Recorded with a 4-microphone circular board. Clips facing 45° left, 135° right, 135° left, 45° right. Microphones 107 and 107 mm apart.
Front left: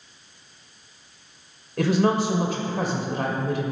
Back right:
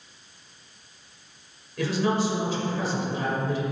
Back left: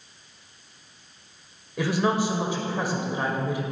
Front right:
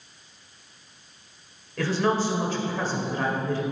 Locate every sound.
1.8 s a woman speaking: 60° left, 1.8 m